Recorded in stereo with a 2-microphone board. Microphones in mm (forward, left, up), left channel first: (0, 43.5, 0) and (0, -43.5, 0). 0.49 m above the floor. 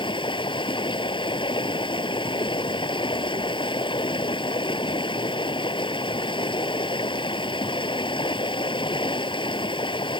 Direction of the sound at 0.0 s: 70° left (ahead or behind).